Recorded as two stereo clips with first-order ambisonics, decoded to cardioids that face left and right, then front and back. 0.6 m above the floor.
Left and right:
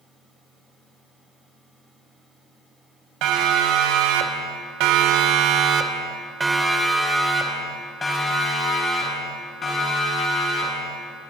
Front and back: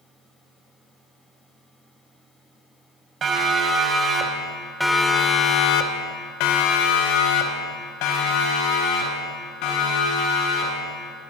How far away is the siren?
About 3.5 m.